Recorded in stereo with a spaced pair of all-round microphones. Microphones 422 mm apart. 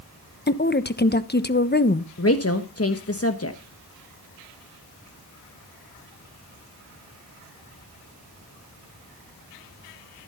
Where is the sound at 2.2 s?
35° left (ahead or behind), 1.2 m.